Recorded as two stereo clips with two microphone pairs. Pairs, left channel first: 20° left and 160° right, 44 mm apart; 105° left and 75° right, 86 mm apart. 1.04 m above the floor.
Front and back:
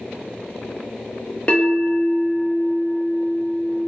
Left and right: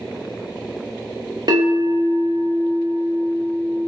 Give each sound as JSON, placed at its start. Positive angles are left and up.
{"t": 1.5, "sound": "a bell", "azimuth_deg": -40, "distance_m": 1.0}